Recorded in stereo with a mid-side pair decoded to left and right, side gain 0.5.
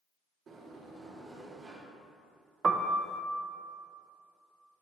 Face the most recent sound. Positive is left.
turn(degrees=-35)